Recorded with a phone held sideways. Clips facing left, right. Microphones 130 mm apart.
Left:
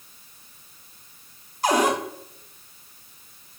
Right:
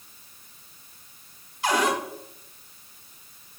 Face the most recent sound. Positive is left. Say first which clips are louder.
# left 3 dB
turn(degrees=40)  # may be behind; listen again after turning